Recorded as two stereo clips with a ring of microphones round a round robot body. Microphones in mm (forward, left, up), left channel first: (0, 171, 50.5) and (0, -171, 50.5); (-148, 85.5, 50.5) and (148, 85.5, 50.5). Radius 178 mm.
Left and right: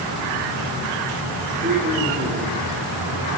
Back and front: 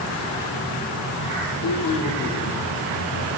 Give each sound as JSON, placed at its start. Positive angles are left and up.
{"t": 1.6, "sound": "a man speaking", "azimuth_deg": -160, "distance_m": 1.8}